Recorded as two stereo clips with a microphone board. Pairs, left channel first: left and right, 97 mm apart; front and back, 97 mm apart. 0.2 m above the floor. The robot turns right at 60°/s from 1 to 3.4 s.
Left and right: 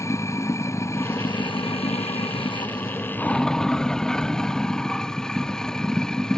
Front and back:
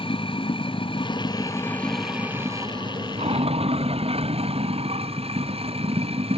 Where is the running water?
30° left; by 6.4 s 175° left.